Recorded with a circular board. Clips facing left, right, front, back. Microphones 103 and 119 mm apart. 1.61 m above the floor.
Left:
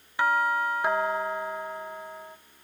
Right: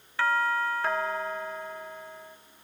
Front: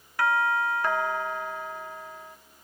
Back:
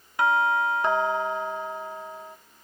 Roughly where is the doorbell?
Behind left.